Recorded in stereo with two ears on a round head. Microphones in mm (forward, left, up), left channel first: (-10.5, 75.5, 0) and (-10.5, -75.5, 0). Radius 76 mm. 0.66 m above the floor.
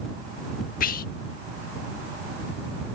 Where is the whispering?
55° left (ahead or behind).